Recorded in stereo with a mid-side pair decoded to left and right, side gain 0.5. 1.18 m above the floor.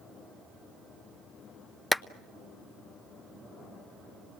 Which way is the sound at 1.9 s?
15° left.